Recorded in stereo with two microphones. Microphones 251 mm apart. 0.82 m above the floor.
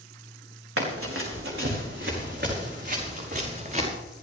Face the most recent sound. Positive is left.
turn(degrees=-30)  # may be behind; listen again after turning